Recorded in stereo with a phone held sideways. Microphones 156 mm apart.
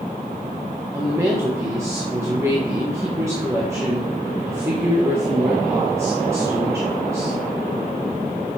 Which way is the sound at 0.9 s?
20° right (ahead or behind).